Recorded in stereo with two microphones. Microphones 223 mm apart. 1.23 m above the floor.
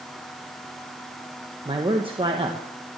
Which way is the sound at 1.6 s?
25° right (ahead or behind).